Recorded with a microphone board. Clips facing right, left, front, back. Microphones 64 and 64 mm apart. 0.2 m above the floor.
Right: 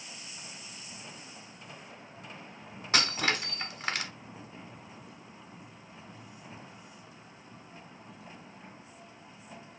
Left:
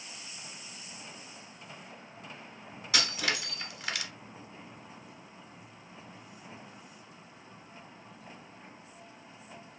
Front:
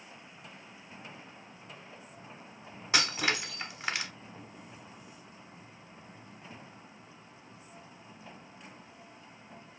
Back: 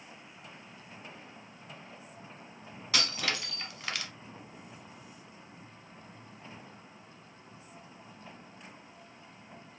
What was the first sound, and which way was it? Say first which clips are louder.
Breaking glass: right 3 dB, front 3 dB; 60° right.